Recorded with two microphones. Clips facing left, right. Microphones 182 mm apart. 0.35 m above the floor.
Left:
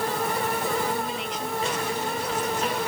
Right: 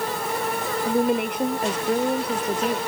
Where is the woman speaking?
60° right (ahead or behind).